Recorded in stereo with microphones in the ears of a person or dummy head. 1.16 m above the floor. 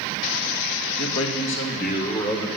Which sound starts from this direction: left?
A man speaking, at 1.0 s.